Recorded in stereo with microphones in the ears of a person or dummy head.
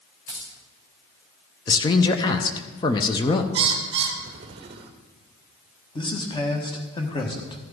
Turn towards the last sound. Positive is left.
turn(degrees=25)  # may be behind; listen again after turning